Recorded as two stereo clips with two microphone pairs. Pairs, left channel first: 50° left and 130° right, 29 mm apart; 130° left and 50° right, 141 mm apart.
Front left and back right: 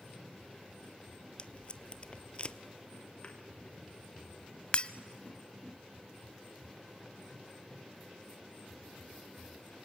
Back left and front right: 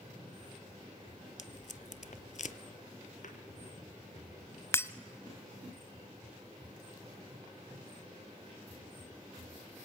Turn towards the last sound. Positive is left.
turn(degrees=65)